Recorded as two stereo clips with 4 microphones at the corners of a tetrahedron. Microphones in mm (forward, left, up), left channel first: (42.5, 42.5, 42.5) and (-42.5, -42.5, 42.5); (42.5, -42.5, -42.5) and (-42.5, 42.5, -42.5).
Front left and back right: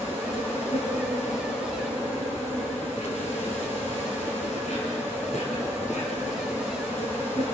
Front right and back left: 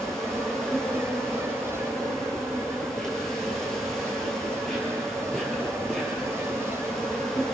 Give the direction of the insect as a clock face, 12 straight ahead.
11 o'clock.